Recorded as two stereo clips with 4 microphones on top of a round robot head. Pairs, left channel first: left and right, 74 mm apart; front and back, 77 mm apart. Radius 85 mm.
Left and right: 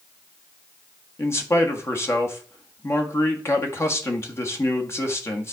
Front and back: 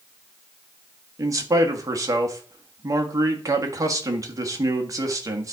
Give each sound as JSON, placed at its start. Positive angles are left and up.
{"t": 1.2, "sound": "a man speaking", "azimuth_deg": 140, "distance_m": 1.7}